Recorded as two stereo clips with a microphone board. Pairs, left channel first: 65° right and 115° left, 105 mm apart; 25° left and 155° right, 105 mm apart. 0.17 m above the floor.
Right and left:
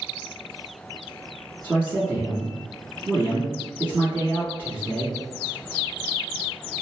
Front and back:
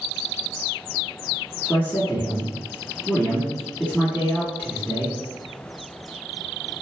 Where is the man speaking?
75° left, 1.7 m.